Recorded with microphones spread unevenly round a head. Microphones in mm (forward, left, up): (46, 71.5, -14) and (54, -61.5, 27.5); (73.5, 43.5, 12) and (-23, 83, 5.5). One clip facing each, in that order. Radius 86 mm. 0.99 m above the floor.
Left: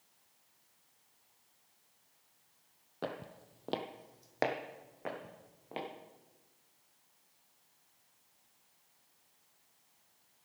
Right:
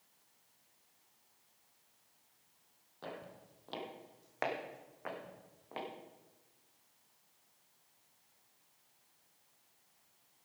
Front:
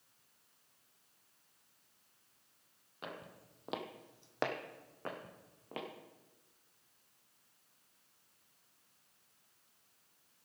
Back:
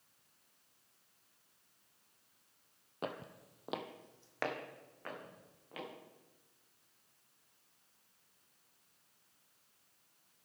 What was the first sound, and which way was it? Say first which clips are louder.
Footsteps: left 6 dB, back 5 dB; 130° left.